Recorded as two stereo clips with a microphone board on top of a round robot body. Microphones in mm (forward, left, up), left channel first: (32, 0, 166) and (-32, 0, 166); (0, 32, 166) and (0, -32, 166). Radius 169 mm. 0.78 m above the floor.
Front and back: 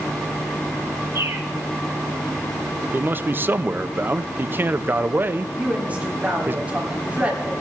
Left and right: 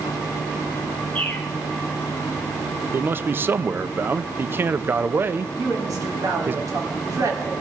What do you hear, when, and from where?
1.1 s a bird: 150° left, 1.7 m
2.9 s a man speaking: 135° right, 0.6 m
5.5 s a woman speaking: 115° right, 3 m